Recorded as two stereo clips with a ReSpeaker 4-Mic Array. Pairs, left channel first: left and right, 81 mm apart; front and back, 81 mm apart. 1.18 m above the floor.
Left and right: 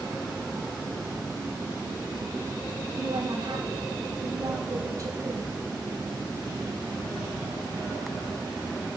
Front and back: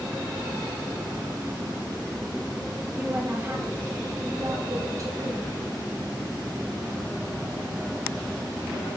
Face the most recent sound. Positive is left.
turn(degrees=-140)